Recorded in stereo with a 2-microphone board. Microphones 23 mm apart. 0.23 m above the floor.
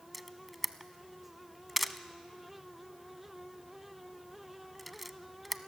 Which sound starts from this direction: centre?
A camera shutter, at 0.1 s.